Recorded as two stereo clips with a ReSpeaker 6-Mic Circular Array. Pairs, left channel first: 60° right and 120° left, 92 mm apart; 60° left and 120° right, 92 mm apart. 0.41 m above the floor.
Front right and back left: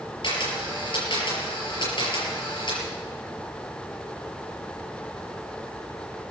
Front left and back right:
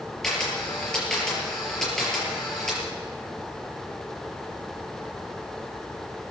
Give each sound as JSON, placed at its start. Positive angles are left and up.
{"t": 0.2, "sound": "a camera shutter", "azimuth_deg": -25, "distance_m": 5.5}